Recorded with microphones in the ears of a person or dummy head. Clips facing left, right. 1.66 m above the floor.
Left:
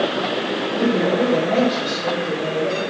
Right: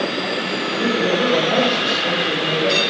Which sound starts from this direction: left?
A man speaking, at 0.8 s.